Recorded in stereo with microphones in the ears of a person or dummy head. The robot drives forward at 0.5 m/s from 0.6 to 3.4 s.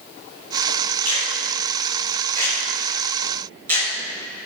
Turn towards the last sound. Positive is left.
turn(degrees=-50)  # may be behind; listen again after turning